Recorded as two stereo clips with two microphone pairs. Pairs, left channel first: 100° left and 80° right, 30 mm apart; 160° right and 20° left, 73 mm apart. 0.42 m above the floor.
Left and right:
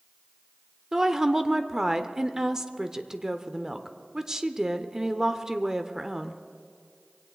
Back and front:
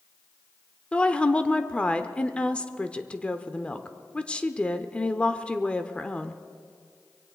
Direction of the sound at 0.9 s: 115° right.